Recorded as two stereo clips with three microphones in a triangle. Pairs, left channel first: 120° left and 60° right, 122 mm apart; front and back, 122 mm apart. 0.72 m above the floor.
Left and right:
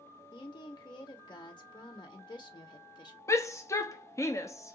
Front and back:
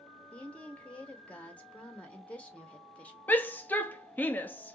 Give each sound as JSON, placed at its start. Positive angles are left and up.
{"t": 0.3, "sound": "a woman speaking", "azimuth_deg": 75, "distance_m": 1.0}
{"t": 3.3, "sound": "a shout", "azimuth_deg": 70, "distance_m": 0.6}